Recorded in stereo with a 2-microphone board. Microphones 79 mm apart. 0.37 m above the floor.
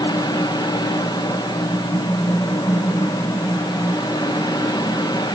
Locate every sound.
Only background noise.